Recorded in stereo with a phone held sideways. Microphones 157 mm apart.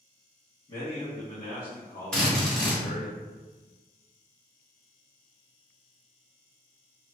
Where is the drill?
5° left (ahead or behind), 1.6 m.